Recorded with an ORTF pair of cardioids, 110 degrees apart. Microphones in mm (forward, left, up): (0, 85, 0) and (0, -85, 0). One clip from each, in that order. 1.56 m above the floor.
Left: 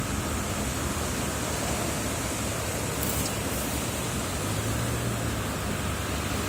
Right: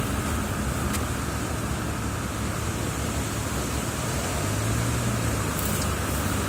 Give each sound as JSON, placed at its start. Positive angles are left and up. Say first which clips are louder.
{"t": 0.0, "sound": "a vehicle", "louder": "right 2 dB", "azimuth_deg": -25}